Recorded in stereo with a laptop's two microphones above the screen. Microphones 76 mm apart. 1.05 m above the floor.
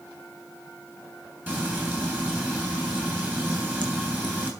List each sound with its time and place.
1.5 s frying: 25° right (ahead or behind), 6 m